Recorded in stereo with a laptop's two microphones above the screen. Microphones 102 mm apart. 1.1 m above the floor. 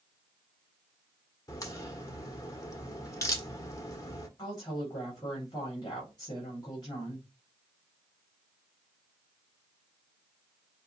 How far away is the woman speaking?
About 3.5 m.